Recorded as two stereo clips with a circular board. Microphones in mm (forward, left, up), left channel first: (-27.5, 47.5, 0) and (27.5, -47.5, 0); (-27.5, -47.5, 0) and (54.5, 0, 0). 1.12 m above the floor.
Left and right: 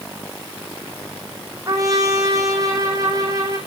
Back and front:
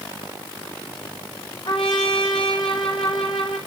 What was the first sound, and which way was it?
A trumpet, 115° right.